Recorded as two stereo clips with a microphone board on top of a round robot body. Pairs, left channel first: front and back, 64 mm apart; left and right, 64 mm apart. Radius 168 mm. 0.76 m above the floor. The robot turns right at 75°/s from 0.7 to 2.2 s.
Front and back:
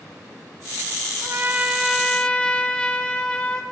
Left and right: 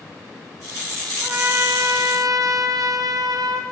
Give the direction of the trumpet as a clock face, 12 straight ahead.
5 o'clock.